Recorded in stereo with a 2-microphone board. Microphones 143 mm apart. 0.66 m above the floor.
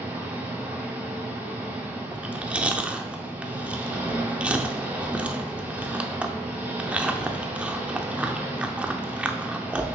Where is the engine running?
15° right (ahead or behind), 1.5 m.